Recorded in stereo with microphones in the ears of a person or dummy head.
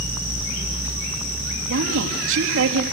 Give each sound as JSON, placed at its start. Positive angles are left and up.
{"t": 1.7, "sound": "a woman speaking", "side_deg": -75, "distance_m": 3.0}